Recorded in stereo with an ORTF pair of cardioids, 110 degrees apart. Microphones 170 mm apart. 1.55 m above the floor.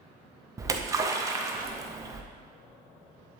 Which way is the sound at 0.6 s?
20° right.